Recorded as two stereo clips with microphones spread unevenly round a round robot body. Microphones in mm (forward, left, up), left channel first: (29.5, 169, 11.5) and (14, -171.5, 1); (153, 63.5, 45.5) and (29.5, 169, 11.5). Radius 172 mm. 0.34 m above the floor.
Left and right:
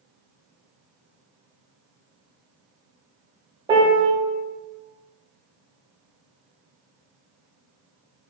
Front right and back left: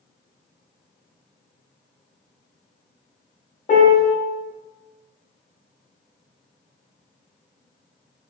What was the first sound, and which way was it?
A piano, 25° right.